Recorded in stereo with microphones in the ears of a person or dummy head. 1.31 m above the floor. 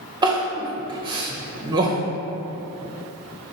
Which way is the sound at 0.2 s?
20° right (ahead or behind).